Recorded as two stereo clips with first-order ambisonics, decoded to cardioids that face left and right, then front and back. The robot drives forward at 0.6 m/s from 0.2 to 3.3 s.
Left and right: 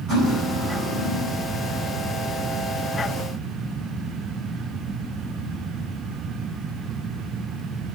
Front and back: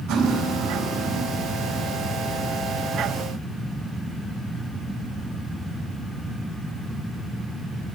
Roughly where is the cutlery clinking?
Behind right.